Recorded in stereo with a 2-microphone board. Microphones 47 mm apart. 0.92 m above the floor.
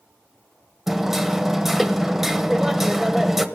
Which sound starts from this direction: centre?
Hammering, at 0.9 s.